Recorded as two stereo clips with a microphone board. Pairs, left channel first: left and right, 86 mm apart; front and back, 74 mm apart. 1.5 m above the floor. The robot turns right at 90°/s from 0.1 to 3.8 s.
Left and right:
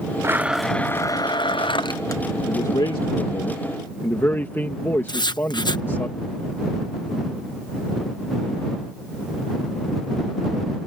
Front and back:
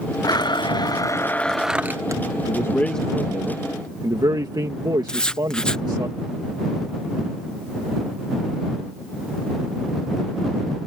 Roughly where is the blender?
Ahead right.